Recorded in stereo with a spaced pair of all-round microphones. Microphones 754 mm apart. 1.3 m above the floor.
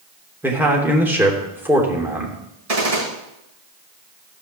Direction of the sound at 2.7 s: 50° right (ahead or behind).